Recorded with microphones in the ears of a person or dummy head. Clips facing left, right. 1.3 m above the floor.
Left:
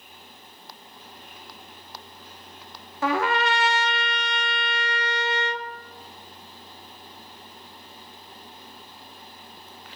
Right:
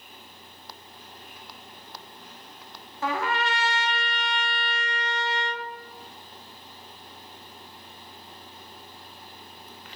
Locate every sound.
3.0 s a trumpet: 50° left (ahead or behind), 0.6 m